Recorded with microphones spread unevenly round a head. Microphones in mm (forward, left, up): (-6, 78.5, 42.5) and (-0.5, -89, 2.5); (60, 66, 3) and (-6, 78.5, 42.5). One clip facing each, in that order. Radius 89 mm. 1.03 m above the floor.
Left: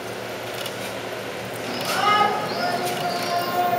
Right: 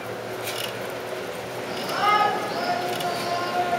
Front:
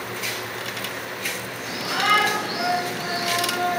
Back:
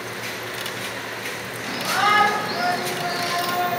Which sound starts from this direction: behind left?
A shout, at 1.6 s.